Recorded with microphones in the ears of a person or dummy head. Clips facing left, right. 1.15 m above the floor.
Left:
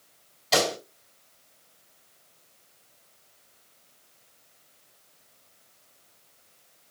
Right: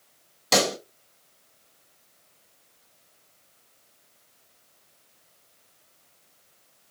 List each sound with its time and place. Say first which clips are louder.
0.5 s a pop: right 1 dB; 65° right (ahead or behind), 3 m